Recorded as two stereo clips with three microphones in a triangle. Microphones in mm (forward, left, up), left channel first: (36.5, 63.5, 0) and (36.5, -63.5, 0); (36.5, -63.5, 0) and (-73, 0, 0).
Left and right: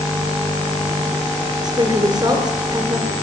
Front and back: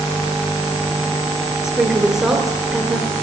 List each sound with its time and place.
1.6 s a woman speaking: 125° right, 1.9 m